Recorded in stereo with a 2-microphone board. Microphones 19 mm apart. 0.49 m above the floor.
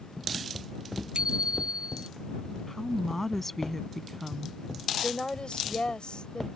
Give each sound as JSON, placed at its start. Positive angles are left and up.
{"t": 1.1, "sound": "a bicycle bell", "side_deg": -65}
{"t": 2.7, "sound": "a woman speaking", "side_deg": 15}
{"t": 5.0, "sound": "a woman speaking", "side_deg": 60}